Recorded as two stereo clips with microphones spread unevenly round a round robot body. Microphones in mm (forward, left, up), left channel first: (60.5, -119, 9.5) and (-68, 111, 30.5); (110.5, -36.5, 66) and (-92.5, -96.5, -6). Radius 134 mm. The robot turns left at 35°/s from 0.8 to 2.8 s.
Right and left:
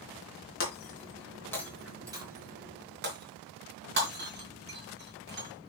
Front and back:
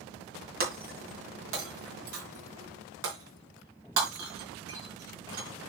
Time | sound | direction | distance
0.6 | breaking glass | 115° right | 4 m